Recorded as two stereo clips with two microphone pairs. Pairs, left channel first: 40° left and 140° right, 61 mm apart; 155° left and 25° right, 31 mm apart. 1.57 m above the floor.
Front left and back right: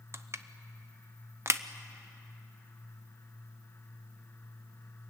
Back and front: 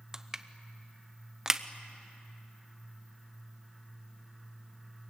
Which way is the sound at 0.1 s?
100° right.